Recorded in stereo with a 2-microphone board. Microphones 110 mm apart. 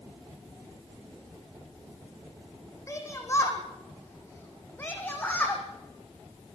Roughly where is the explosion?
I don't hear an explosion.